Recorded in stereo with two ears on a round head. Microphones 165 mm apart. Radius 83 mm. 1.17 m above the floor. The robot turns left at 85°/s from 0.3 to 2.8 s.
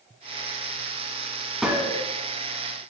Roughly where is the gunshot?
Ahead.